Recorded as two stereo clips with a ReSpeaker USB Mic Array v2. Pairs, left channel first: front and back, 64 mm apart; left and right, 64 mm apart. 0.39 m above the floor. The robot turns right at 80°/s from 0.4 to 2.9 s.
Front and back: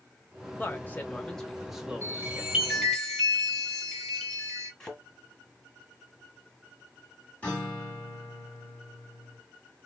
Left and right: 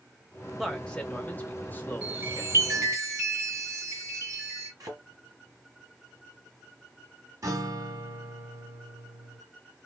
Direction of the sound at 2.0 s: 150° right.